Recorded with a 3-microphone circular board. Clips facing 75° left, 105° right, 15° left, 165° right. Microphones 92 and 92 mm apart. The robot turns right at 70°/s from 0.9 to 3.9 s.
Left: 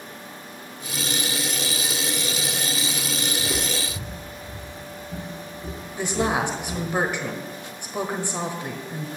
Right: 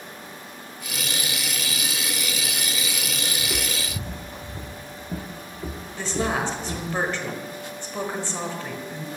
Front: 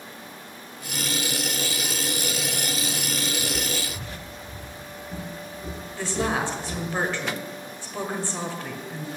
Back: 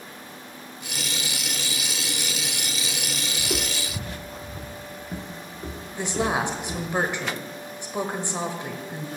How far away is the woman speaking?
About 1.0 m.